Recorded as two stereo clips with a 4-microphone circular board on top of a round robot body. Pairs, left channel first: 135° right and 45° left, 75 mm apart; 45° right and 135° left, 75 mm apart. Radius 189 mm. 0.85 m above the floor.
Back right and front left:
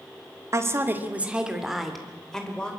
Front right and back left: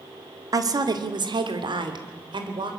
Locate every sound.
0.5 s a woman speaking: 95° left, 2 m; by 2.7 s 145° left, 4 m